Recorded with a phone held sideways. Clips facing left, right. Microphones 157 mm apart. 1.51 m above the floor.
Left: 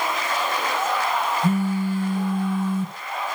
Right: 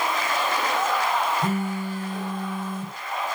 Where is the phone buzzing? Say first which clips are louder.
Left 4 dB; 65° right (ahead or behind), 4 m.